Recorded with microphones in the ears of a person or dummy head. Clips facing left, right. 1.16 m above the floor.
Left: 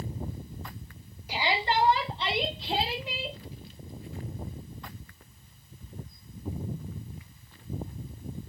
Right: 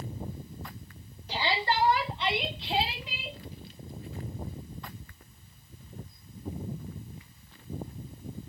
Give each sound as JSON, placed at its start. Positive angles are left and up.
{"t": 1.3, "sound": "a shout", "side_deg": 10, "distance_m": 2.5}